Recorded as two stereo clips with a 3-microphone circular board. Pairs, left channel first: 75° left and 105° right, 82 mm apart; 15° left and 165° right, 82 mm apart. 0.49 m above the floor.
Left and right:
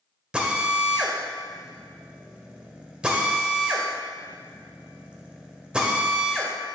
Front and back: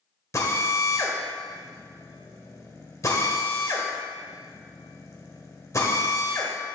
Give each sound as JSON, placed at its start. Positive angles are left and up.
{"t": 0.3, "sound": "a drill", "azimuth_deg": -30, "distance_m": 1.6}